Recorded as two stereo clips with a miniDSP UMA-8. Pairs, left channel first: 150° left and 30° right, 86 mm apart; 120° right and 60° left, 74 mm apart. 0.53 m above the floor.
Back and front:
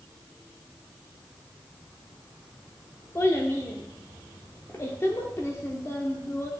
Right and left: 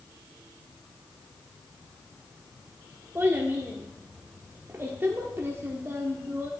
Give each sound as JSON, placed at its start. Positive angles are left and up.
{"t": 3.1, "sound": "a child speaking", "azimuth_deg": 105, "distance_m": 0.8}